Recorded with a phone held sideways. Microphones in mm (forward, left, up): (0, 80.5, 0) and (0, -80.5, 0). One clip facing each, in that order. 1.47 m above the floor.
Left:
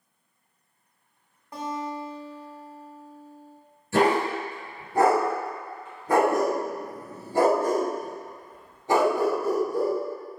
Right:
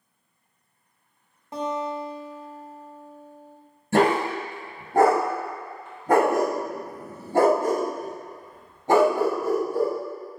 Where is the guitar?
20° right (ahead or behind), 0.6 m.